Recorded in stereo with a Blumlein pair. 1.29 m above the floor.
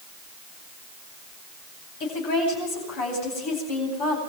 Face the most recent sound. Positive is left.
turn(degrees=45)